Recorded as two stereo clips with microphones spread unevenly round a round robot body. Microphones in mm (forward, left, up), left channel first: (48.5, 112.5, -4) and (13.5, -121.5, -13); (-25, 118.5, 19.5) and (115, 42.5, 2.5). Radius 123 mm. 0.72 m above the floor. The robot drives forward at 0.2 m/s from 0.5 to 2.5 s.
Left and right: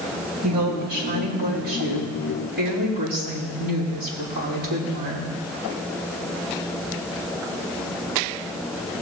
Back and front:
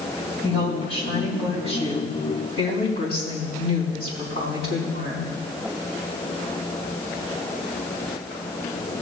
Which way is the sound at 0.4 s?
150° right.